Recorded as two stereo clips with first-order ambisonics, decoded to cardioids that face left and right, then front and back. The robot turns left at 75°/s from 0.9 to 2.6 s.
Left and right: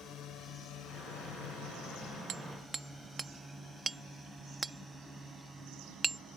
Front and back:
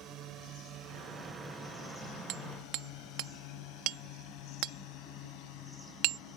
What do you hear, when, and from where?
0.0 s a drone: 140° left; by 6.4 s 10° right
2.3 s hammering: 145° right; by 6.2 s 165° right